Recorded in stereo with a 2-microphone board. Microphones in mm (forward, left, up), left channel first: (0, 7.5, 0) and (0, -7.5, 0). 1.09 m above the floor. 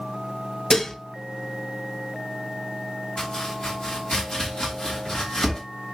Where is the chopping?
30° left (ahead or behind), 2.5 m.